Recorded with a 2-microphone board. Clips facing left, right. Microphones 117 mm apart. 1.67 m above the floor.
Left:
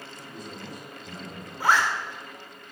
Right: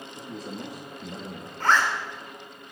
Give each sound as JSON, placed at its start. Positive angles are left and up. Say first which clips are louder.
{"t": 0.1, "sound": "a man speaking", "louder": "right 6 dB", "side_deg": -85, "distance_m": 4.5}
{"t": 1.6, "sound": "a zipper", "louder": "even", "side_deg": 10, "distance_m": 3.5}